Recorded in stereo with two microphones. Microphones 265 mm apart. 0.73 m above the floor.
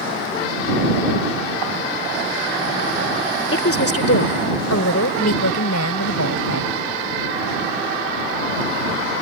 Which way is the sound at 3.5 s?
55° left (ahead or behind).